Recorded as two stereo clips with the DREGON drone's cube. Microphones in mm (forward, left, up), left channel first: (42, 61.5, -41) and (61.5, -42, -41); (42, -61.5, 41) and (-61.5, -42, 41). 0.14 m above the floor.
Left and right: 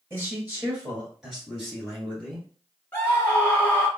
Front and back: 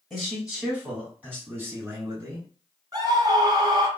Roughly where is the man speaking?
Right.